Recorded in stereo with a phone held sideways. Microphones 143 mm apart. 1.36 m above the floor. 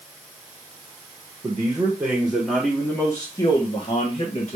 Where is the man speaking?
30° right (ahead or behind), 1.2 m; by 4.6 s 50° left (ahead or behind), 1.6 m.